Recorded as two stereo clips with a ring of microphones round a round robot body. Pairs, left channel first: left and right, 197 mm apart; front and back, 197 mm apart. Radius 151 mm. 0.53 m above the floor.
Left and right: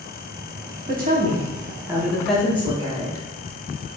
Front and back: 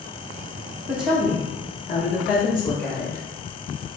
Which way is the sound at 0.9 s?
105° right.